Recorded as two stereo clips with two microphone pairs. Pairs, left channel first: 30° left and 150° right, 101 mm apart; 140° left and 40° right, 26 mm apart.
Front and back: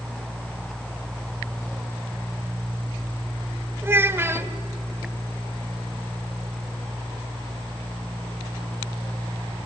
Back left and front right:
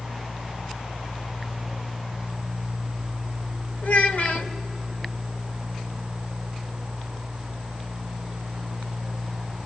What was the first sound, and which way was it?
A child speaking, 145° left.